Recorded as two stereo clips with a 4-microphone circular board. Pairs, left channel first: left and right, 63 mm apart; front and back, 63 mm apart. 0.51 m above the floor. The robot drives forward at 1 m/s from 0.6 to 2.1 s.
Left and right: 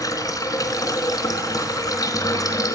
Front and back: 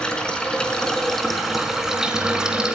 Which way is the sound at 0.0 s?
75° left.